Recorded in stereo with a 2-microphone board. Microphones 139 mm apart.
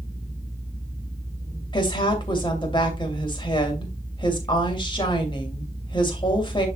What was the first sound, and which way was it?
A woman speaking, 30° left (ahead or behind).